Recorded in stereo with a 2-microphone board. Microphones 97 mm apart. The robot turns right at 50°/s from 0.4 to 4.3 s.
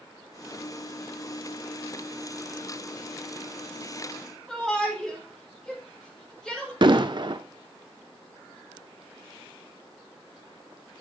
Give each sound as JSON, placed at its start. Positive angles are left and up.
{"t": 4.5, "sound": "a shout", "side_deg": 0, "distance_m": 2.0}
{"t": 6.8, "sound": "an explosion", "side_deg": -50, "distance_m": 0.5}